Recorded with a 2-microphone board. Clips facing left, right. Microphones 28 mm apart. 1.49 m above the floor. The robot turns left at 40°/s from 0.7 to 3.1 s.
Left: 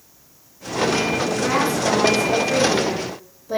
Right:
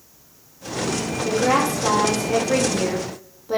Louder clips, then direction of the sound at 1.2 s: Right 1 dB; 65° right.